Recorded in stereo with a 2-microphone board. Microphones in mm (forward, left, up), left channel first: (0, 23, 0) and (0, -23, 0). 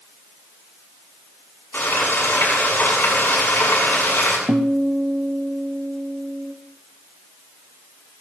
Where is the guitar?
55° right (ahead or behind), 1.0 m.